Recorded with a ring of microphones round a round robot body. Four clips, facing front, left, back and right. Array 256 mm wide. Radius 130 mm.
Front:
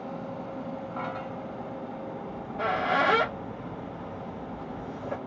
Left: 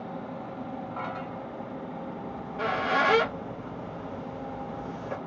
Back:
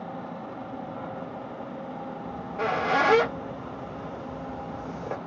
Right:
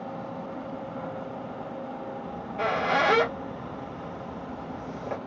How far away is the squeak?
About 1.8 m.